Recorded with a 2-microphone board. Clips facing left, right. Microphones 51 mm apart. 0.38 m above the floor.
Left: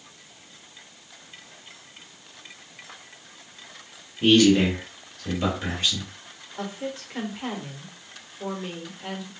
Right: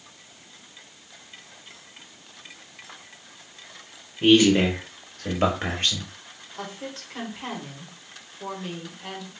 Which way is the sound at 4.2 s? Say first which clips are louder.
Even; 15° right (ahead or behind).